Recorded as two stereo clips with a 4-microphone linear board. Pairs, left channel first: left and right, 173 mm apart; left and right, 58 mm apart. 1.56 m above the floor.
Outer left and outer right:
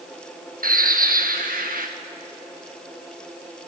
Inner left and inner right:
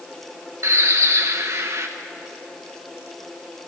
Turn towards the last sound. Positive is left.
turn(degrees=-55)  # may be behind; listen again after turning